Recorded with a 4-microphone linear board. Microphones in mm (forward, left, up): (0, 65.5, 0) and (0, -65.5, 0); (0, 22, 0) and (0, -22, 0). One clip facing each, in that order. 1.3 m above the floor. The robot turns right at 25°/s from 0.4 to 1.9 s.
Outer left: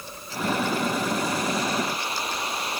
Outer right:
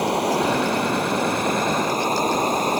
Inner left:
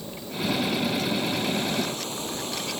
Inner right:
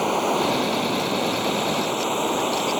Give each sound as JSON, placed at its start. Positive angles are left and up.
{"t": 0.0, "sound": "running water", "azimuth_deg": -80}